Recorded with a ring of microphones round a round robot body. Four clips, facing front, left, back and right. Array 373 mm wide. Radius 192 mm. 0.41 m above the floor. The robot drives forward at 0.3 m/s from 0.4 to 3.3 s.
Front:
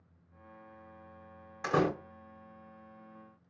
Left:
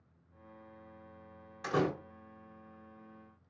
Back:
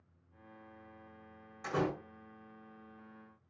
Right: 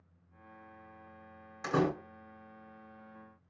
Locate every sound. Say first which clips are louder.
1.6 s a door slam: right 1 dB, front 5 dB; 15° right, 1.1 m